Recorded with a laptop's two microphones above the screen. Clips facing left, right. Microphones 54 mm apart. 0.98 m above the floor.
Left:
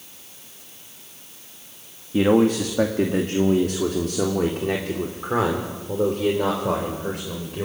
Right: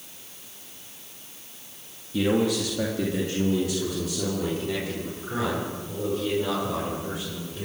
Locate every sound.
2.1 s a man speaking: 35° left (ahead or behind), 1.8 m; by 7.7 s 60° left (ahead or behind), 5 m